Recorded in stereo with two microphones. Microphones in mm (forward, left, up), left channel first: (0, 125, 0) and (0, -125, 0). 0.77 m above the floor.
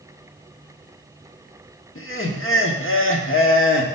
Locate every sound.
1.9 s laughter: 55° left (ahead or behind), 1.3 m